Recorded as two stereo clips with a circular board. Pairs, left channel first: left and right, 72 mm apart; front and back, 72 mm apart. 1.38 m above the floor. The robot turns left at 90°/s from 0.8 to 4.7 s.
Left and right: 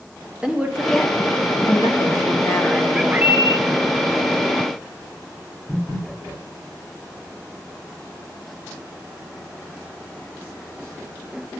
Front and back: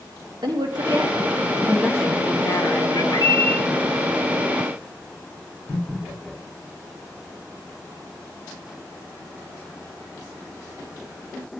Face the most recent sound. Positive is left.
turn(degrees=-160)